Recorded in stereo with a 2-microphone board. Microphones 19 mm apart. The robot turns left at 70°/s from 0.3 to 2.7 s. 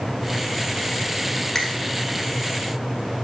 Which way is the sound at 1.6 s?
20° left (ahead or behind).